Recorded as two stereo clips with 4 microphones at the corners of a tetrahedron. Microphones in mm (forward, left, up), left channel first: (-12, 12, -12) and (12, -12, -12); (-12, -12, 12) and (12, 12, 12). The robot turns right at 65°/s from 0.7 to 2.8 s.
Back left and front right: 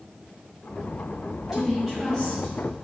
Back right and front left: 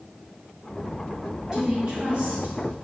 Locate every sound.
1.5 s a woman speaking: 15° left, 1.7 m; by 2.6 s 85° left, 1.7 m